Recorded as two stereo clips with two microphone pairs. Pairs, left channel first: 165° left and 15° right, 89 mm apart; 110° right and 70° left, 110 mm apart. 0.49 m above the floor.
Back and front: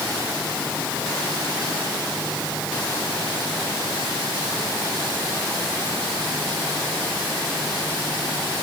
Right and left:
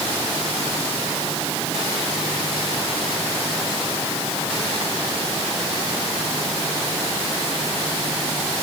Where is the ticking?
No ticking in this recording.